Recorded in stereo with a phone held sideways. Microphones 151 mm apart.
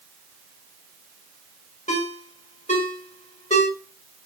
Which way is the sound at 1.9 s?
50° left (ahead or behind).